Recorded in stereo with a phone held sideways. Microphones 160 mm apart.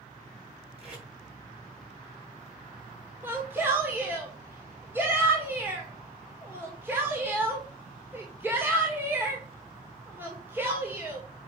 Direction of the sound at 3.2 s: 15° right (ahead or behind).